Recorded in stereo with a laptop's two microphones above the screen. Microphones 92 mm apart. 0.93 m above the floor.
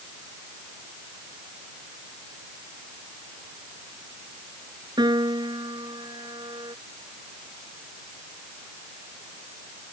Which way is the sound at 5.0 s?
55° right (ahead or behind).